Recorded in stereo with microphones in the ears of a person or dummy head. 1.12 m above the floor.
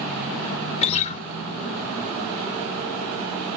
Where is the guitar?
35° left (ahead or behind), 0.8 m.